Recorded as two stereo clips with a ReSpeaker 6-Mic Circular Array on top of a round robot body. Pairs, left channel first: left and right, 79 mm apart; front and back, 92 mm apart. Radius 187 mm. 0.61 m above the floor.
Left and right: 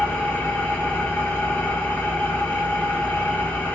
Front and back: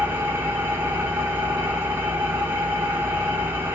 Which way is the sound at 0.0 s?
140° left.